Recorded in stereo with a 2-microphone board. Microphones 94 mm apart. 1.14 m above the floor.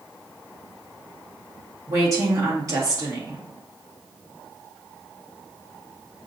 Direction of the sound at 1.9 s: 35° right (ahead or behind).